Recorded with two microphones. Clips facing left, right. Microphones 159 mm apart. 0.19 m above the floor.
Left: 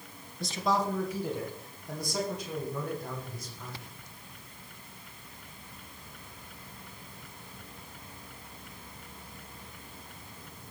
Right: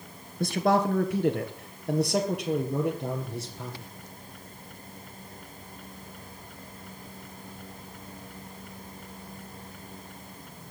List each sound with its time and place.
0.4 s a man speaking: 60° right (ahead or behind), 2.5 m; by 3.9 s 80° right, 5.5 m